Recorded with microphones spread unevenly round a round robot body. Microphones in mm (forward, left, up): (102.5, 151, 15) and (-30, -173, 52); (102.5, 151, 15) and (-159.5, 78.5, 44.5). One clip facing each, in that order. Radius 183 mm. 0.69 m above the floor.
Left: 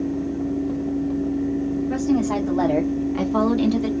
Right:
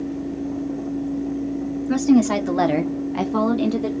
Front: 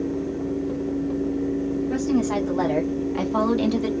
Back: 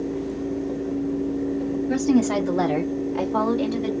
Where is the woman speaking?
130° right, 1.8 m; by 3.9 s 5° left, 1.9 m.